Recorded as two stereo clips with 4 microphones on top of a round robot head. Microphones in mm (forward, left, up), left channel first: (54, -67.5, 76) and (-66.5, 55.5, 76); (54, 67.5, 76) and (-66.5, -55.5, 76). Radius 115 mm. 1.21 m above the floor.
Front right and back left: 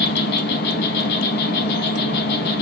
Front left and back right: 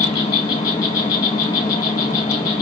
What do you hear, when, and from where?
0.0 s an insect: 25° right, 0.8 m